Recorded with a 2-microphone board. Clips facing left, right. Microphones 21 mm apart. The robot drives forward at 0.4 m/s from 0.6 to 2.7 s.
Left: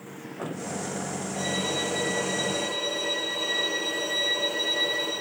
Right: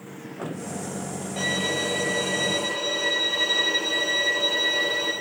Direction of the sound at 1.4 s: 40° right (ahead or behind).